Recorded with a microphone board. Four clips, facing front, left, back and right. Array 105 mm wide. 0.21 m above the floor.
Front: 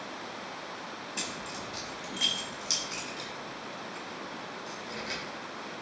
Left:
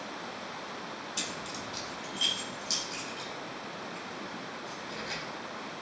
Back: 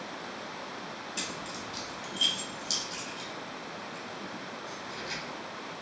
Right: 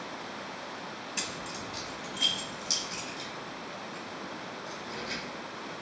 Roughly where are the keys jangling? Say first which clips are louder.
Even, front 1 dB; right.